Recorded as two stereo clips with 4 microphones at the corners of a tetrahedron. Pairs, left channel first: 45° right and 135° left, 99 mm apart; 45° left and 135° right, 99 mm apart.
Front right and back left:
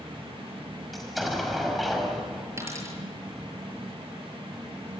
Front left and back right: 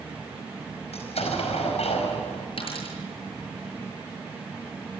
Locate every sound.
0.9 s an explosion: 45° left, 5 m
2.6 s a dropped coin: 70° left, 8 m